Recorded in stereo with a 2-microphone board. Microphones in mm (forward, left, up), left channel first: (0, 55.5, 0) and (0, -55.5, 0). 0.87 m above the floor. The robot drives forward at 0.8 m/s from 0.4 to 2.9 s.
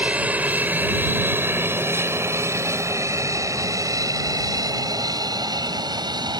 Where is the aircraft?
10° right (ahead or behind); by 6.4 s 40° right (ahead or behind).